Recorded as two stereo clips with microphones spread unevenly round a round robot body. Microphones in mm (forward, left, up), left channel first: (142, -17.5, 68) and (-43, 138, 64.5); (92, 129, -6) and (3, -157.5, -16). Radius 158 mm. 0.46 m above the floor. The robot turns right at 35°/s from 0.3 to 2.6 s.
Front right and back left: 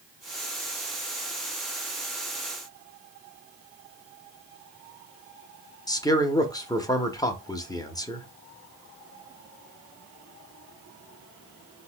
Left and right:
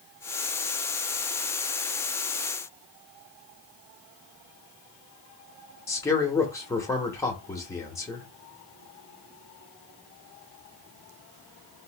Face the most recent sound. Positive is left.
turn(degrees=5)